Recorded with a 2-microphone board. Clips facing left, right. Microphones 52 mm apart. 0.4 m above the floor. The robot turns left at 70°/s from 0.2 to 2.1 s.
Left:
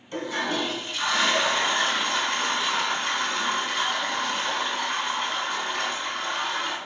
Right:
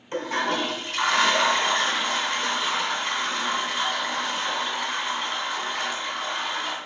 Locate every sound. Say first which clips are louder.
0.1 s a toilet flushing: right 2 dB; 35° right, 3 m; by 6.8 s 170° right, 3 m